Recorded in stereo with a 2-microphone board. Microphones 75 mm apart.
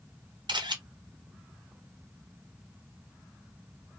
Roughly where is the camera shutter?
Right.